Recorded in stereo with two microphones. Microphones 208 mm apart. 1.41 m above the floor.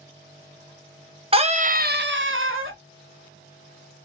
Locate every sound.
1.3 s a scream: 25° right (ahead or behind), 1.1 m; by 2.8 s 75° right (ahead or behind), 1.0 m